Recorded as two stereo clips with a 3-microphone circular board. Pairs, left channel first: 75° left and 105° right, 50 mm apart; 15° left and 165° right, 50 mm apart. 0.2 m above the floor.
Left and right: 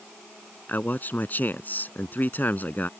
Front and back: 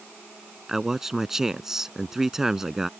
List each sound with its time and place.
0.7 s a man speaking: 115° left